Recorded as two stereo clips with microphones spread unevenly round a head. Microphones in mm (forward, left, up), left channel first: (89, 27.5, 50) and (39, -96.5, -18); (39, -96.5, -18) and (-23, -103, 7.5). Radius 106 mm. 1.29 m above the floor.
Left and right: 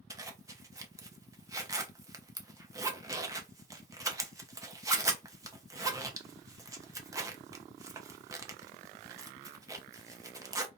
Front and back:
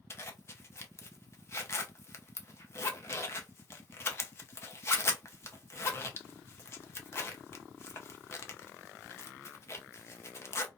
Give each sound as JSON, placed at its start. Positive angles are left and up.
{"t": 0.1, "sound": "a zipper", "azimuth_deg": -45, "distance_m": 0.7}